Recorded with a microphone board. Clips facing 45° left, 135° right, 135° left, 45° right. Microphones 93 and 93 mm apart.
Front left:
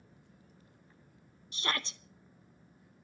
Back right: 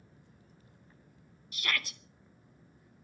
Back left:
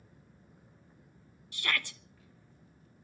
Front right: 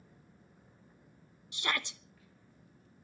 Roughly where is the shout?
Ahead.